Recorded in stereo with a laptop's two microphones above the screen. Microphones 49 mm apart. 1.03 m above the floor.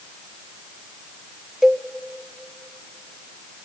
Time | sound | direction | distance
1.6 | a cowbell | 10° right (ahead or behind) | 0.9 m